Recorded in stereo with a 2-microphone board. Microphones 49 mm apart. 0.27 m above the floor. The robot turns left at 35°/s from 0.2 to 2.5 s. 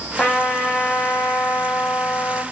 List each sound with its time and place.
0.2 s a trumpet: 160° left, 0.8 m; by 2.4 s 80° left, 0.8 m